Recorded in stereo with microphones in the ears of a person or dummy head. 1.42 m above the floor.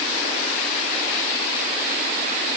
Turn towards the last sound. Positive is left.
No sound to turn to.